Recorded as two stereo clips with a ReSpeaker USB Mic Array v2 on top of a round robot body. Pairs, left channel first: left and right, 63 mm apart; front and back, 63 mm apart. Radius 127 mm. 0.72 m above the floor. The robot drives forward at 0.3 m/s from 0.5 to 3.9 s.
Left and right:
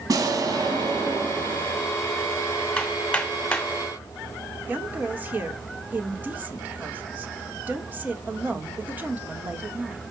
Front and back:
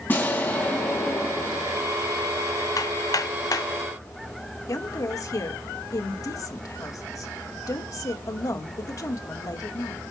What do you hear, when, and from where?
0.1 s an explosion: 60° right, 4 m; by 2.0 s 65° right, 3.5 m
2.8 s hammering: 15° left, 3 m
4.7 s a woman speaking: 30° right, 2.5 m